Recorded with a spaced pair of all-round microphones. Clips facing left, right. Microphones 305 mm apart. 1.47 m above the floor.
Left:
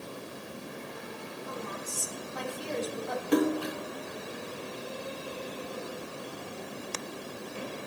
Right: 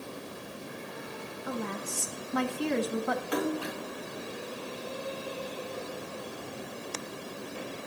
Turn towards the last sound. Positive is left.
turn(degrees=45)  # may be behind; listen again after turning